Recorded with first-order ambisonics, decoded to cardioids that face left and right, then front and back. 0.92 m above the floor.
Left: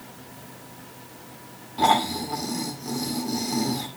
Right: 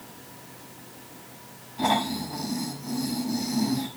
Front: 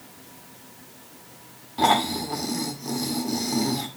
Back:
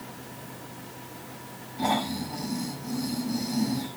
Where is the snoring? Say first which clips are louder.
Left 5 dB, front 7 dB; 35° left, 2 m.